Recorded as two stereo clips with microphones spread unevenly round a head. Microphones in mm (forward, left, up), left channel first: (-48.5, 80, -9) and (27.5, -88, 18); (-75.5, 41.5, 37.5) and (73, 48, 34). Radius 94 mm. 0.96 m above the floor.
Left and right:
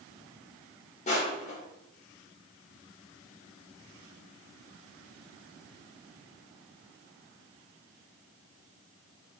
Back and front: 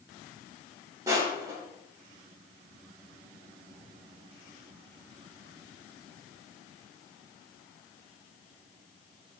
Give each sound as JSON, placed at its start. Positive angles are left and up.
{"t": 1.1, "sound": "crushing", "azimuth_deg": 65, "distance_m": 0.6}